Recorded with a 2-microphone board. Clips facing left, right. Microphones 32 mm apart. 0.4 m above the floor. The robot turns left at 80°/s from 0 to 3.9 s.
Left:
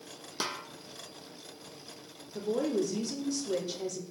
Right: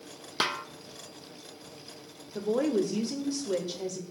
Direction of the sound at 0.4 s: 50° right (ahead or behind).